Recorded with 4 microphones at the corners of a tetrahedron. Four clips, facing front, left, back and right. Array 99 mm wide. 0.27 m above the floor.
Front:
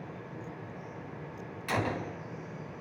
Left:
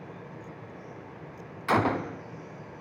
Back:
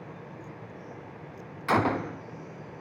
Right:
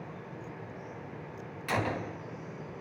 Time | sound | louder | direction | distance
1.7 | a gunshot | left 7 dB, back 7 dB | 135° left | 1.2 m